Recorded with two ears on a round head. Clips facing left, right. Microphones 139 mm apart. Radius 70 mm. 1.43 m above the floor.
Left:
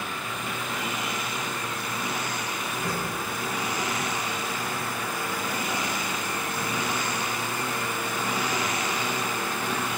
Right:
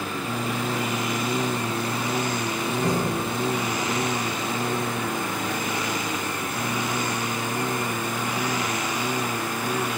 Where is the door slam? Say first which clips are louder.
Right 8 dB; 15° right (ahead or behind).